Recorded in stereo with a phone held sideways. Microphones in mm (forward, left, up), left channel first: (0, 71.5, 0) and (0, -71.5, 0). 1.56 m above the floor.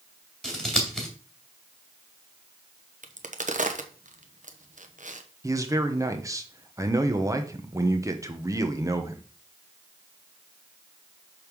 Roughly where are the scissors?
Centre.